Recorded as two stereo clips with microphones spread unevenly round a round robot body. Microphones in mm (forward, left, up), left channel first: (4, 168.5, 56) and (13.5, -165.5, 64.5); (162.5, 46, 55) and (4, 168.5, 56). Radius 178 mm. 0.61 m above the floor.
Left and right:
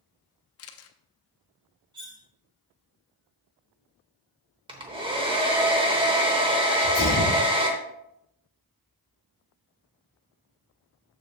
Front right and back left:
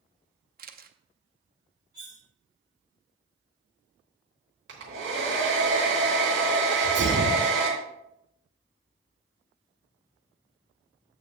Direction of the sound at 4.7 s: 165° right.